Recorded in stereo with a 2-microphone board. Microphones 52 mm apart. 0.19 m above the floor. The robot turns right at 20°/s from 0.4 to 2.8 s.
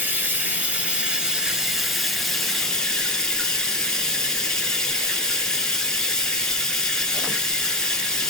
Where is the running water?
35° right, 1.3 m; by 8.3 s 15° left, 1.3 m.